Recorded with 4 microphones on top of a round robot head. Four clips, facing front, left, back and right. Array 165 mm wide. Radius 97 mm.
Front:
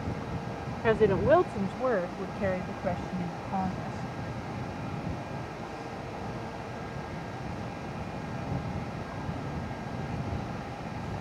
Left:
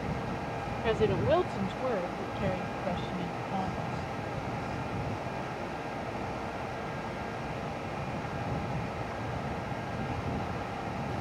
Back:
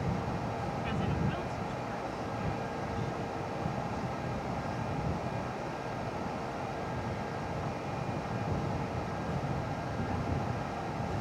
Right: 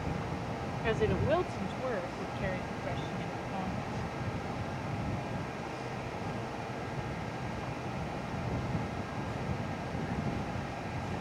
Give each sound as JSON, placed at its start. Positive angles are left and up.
{"t": 0.8, "sound": "a woman speaking", "azimuth_deg": 10}